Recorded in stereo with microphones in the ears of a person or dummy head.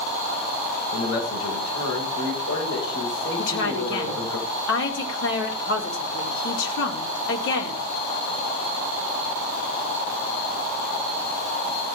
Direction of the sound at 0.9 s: 90° left.